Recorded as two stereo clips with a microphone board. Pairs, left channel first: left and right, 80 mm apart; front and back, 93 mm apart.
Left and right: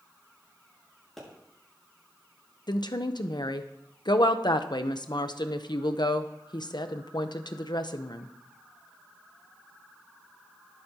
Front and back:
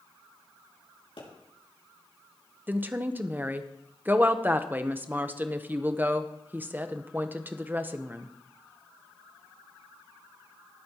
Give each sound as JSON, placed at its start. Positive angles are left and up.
{"t": 1.2, "sound": "a pop", "azimuth_deg": 5, "distance_m": 5.5}
{"t": 2.7, "sound": "a woman speaking", "azimuth_deg": 110, "distance_m": 0.8}